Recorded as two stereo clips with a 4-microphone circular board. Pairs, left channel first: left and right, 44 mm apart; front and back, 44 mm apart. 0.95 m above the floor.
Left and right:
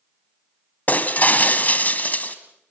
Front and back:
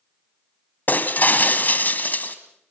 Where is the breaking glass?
40° left, 1.6 m.